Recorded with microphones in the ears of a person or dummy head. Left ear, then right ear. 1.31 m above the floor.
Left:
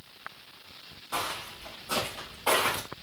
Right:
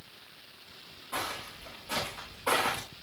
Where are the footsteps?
45° left (ahead or behind), 5.5 m; by 2.8 s 20° left (ahead or behind), 6 m.